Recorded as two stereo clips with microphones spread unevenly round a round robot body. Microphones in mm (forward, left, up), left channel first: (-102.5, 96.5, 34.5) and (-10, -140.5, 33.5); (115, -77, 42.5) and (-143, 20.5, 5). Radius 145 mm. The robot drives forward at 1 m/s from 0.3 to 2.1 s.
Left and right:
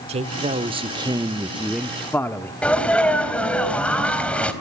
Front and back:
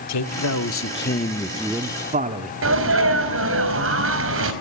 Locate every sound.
0.1 s a man speaking: 5° right, 1.4 m; by 2.5 s 170° right, 1.1 m
2.6 s a sneeze: 165° right, 4 m